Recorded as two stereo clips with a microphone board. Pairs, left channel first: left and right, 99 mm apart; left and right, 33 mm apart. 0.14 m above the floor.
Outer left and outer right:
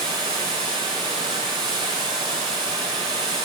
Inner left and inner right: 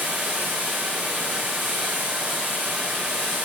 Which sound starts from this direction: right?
Running water, at 0.0 s.